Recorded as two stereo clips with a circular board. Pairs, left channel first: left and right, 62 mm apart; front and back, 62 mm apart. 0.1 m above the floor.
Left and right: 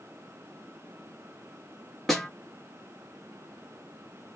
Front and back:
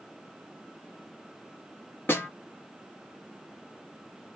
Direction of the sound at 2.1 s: 5° left.